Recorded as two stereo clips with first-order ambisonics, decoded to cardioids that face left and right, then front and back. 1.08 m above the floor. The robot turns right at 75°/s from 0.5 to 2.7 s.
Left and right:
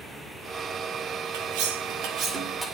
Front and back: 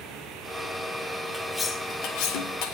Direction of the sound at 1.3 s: 95° right.